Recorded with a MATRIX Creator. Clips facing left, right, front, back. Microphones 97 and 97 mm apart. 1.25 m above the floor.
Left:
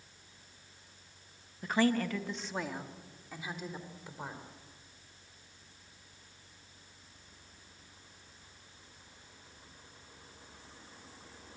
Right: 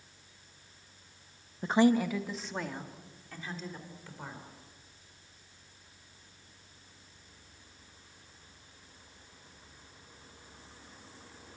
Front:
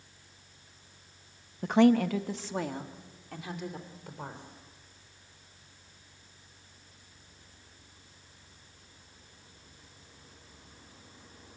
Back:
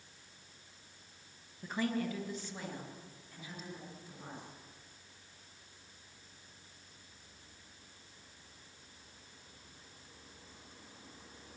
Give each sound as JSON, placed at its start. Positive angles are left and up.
{"t": 1.6, "sound": "a woman speaking", "azimuth_deg": -30, "distance_m": 1.2}